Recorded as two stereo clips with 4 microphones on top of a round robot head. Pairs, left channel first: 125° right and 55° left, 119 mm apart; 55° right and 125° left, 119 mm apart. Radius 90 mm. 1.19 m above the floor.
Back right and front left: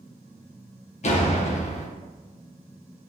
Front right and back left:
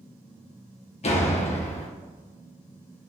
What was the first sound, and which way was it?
A door slam, 90° right.